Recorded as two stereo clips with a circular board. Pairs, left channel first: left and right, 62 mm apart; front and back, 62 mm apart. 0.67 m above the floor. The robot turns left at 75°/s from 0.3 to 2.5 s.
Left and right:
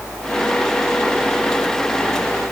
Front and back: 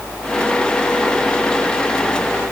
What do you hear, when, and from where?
Only background noise.